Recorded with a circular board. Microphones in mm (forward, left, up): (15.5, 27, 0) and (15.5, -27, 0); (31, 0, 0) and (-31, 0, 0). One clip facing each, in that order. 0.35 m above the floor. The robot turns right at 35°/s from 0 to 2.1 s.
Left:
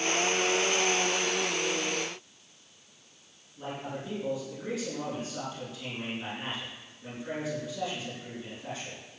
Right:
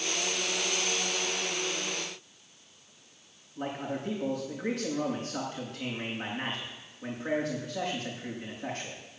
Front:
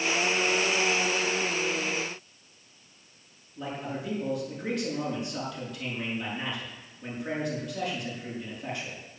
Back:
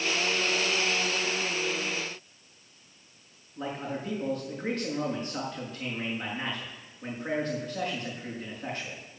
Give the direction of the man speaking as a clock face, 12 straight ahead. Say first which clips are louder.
Right 3 dB, back 1 dB; 4 o'clock.